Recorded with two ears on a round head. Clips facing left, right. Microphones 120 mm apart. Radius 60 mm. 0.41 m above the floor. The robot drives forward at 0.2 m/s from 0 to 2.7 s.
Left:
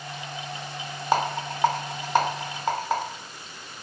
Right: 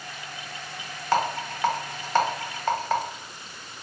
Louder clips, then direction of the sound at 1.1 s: Even; 15° left (ahead or behind).